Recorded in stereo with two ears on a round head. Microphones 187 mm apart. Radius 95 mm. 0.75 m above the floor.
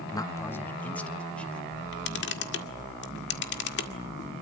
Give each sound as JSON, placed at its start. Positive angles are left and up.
{"t": 0.1, "sound": "a man speaking", "side_deg": 20, "distance_m": 0.5}
{"t": 1.7, "sound": "a camera shutter", "side_deg": 55, "distance_m": 1.8}